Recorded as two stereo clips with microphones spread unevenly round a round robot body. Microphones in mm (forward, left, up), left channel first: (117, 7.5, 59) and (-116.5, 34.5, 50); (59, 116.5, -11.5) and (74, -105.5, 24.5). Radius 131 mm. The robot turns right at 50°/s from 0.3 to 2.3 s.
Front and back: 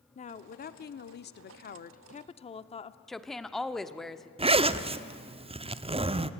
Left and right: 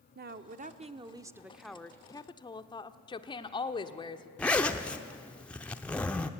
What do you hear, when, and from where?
0.1 s a woman speaking: 55° right, 0.8 m; by 3.0 s 45° left, 0.8 m
3.1 s a woman speaking: 85° left, 1.0 m
4.4 s a zipper: 150° left, 0.7 m